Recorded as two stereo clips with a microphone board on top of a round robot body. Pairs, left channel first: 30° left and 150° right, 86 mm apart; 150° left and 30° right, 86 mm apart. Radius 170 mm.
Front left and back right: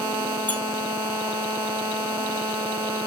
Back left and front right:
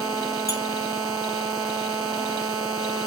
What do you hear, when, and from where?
0.5 s a squeak: 100° left, 2.5 m